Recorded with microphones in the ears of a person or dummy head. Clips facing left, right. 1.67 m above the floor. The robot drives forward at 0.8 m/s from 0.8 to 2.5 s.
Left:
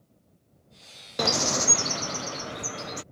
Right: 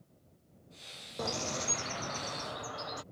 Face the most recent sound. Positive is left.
turn(degrees=35)  # may be behind; listen again after turning